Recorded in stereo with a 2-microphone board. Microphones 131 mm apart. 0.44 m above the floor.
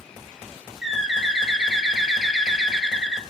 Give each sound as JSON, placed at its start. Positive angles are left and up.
{"t": 0.8, "sound": "a bird", "side_deg": -5, "distance_m": 0.9}